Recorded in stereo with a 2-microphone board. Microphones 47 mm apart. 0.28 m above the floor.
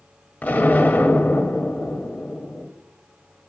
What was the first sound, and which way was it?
An explosion, 30° left (ahead or behind).